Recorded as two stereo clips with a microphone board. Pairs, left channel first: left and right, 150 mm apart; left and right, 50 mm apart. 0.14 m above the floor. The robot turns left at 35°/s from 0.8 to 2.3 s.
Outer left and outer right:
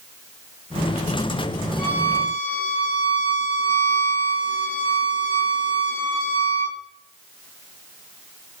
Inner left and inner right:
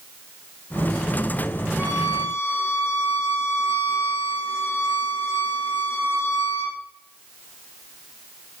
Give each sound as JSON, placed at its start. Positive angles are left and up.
{"t": 1.8, "sound": "a violin", "side_deg": 70, "distance_m": 4.0}